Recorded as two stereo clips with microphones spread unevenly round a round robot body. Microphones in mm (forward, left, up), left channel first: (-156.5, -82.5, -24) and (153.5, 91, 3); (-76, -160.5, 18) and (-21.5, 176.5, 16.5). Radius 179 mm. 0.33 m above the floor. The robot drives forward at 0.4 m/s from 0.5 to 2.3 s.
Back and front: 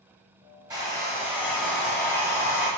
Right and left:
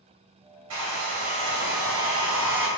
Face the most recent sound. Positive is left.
turn(degrees=130)